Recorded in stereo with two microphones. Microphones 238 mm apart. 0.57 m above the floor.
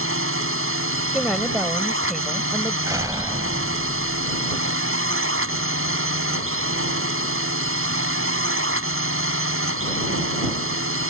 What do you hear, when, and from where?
0.0 s a drone: 60° right (ahead or behind)
1.1 s a woman speaking: centre (ahead or behind)
2.9 s a door slam: 15° right (ahead or behind)